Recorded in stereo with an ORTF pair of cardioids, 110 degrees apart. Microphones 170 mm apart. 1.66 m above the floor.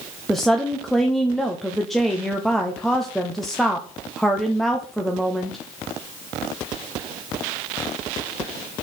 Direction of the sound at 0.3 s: Straight ahead.